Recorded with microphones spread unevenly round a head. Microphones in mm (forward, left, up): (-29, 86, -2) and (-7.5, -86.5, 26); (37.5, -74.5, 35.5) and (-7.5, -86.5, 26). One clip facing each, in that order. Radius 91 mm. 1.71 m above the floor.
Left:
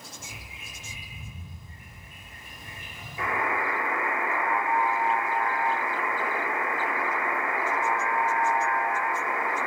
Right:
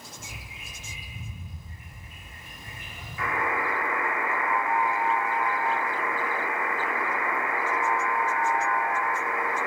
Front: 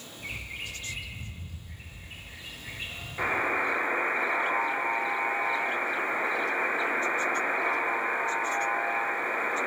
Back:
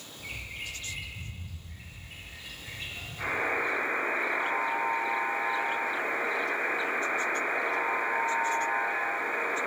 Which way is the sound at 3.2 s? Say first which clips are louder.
Even, front 2 dB; 25° left.